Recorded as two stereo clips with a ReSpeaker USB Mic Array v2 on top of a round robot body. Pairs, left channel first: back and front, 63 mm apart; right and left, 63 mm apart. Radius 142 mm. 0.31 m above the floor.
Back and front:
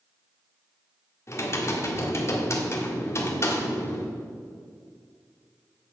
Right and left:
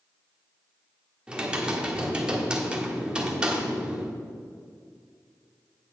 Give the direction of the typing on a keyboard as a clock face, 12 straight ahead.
7 o'clock.